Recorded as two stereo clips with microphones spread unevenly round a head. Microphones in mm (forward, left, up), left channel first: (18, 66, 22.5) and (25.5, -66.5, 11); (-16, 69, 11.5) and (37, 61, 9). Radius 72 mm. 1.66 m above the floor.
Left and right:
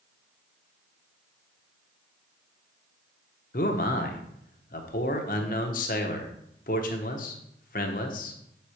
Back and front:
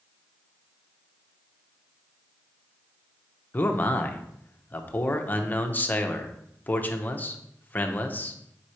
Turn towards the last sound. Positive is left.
turn(degrees=120)